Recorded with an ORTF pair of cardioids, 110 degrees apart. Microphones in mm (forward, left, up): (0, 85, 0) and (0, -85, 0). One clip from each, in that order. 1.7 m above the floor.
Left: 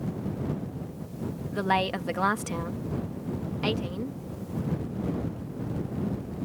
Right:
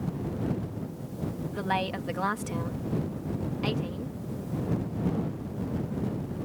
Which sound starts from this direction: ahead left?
A woman speaking, at 1.5 s.